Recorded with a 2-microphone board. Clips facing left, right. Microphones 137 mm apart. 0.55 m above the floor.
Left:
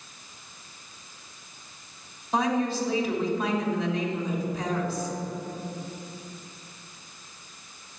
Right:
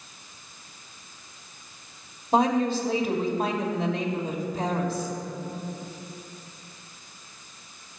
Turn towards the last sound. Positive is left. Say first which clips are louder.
# right 3 dB
turn(degrees=-55)  # may be behind; listen again after turning